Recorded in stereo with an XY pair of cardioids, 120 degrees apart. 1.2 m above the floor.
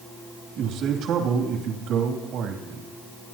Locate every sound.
0.6 s a man speaking: 70° right, 2.5 m